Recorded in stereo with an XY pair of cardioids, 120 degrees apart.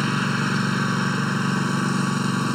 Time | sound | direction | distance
0.0 | a lawn mower | 5° left | ?